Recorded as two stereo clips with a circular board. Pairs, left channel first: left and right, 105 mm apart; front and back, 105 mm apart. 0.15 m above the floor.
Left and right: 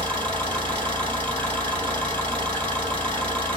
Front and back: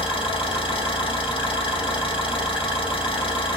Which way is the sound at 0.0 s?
15° left.